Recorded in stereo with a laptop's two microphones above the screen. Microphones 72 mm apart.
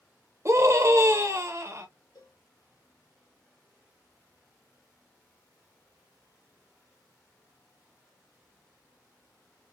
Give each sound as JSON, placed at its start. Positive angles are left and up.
{"t": 0.5, "sound": "a scream", "side_deg": -45, "distance_m": 1.0}
{"t": 2.1, "sound": "a cowbell", "side_deg": 65, "distance_m": 1.1}